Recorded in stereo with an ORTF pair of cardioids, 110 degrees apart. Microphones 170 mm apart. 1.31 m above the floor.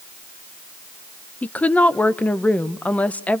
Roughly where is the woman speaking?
Ahead.